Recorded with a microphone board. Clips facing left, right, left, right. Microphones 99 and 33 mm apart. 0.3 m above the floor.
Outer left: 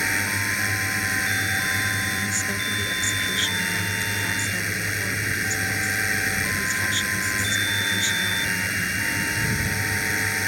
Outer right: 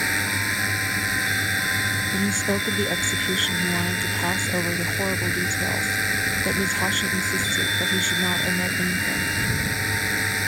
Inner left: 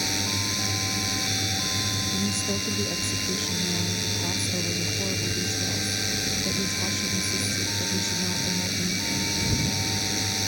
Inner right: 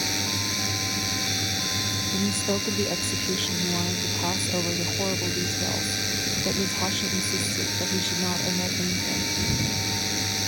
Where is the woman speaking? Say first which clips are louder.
Outer right 5 dB, inner right 2 dB; 45° right (ahead or behind).